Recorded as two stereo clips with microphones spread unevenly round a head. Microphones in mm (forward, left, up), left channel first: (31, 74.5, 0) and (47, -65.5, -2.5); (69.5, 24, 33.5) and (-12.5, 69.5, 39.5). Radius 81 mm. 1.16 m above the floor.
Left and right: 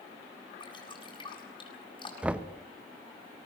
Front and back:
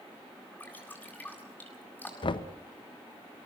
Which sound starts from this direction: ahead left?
Dripping, at 0.6 s.